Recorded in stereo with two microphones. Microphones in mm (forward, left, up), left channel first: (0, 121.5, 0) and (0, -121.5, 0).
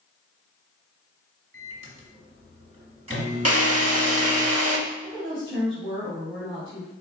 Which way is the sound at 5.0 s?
50° right (ahead or behind).